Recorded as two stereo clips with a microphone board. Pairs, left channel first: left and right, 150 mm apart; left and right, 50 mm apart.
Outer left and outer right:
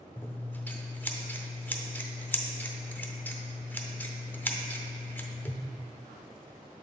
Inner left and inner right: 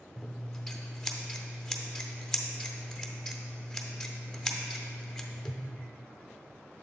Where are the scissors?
15° left (ahead or behind), 0.6 m.